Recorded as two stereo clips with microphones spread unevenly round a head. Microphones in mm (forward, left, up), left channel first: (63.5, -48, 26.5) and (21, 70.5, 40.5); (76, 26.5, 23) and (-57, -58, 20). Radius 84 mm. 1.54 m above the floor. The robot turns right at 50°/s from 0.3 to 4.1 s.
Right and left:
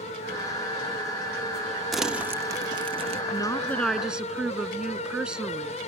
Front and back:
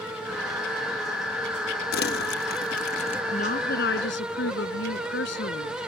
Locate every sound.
1.9 s crumpling: 25° left; by 3.2 s 90° left
3.3 s a woman speaking: 10° right; by 5.8 s 25° left